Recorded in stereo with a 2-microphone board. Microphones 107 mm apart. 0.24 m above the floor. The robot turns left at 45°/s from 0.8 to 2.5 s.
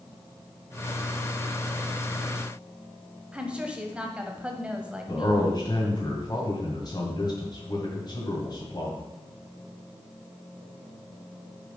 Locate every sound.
3.3 s a woman speaking: 10° right (ahead or behind), 1.0 m
5.1 s a man speaking: 40° left (ahead or behind), 2.0 m